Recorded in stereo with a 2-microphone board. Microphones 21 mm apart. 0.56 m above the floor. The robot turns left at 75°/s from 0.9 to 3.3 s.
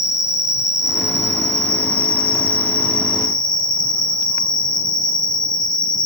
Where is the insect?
155° right, 1.2 m; by 6.0 s 25° left, 1.2 m.